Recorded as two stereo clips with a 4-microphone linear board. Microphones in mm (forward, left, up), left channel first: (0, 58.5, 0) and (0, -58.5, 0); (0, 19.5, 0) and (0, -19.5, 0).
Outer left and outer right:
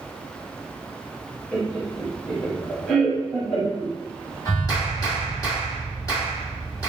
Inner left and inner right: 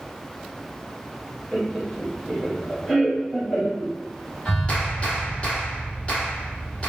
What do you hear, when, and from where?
1.5 s laughter: 10° left (ahead or behind), 1.7 m
4.5 s a clap: 30° left (ahead or behind), 1.6 m